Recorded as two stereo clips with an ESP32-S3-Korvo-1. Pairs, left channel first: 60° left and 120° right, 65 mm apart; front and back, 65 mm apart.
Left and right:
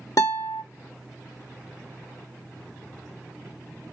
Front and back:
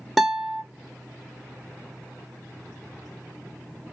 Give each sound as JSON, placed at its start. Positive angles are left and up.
{"t": 0.2, "sound": "a guitar", "azimuth_deg": 90, "distance_m": 1.1}